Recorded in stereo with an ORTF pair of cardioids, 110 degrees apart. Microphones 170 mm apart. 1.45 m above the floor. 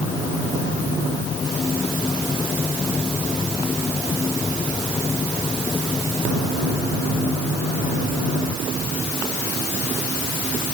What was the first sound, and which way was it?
Only background noise.